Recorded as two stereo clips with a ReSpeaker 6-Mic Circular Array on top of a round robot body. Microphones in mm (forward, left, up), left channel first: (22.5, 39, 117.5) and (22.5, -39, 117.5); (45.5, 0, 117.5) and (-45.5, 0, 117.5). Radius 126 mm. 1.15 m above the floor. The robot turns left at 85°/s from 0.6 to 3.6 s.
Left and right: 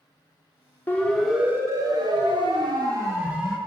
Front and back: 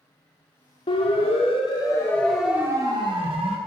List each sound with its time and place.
0.9 s a siren: 25° left, 5 m; by 3.6 s 175° left, 4.5 m